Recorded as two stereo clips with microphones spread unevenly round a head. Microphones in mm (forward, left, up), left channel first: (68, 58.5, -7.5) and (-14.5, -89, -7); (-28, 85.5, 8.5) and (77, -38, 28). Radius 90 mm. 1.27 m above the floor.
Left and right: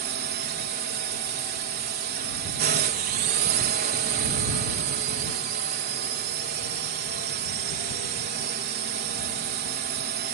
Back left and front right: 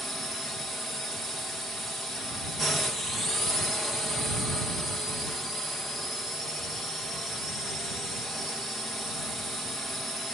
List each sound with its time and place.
0.0 s a drone: 145° right